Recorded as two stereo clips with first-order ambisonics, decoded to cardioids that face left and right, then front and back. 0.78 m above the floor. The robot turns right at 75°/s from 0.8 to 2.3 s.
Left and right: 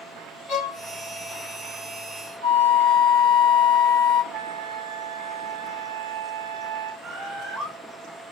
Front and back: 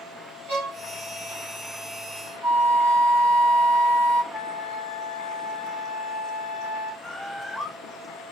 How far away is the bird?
About 1.1 m.